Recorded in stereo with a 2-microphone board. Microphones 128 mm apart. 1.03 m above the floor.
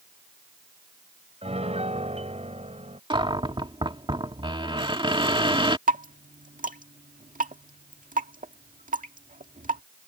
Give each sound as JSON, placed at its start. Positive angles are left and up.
{"t": 1.4, "sound": "a piano", "side_deg": -50}
{"t": 3.1, "sound": "a cupboard door", "side_deg": -40}
{"t": 5.9, "sound": "dripping", "side_deg": -85}